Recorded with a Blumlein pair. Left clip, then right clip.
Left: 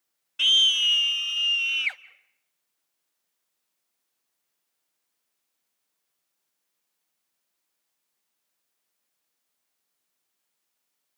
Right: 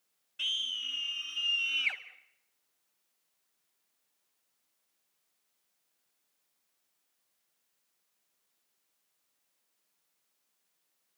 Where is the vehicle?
I don't hear a vehicle.